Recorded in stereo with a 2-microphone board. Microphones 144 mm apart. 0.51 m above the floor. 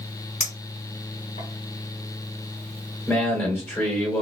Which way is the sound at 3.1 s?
15° left (ahead or behind).